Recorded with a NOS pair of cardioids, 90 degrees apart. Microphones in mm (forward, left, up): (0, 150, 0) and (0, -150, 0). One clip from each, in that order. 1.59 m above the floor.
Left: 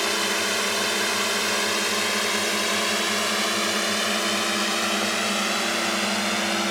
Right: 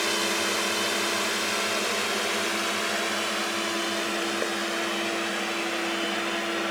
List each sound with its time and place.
0.0 s a drone: 20° left; by 6.7 s 70° left